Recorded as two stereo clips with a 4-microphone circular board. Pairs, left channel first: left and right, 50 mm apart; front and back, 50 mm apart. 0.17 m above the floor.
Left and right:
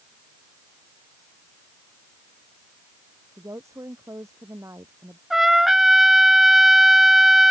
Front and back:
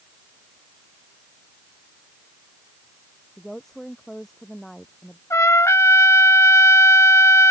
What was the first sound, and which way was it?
A woman speaking, 85° right.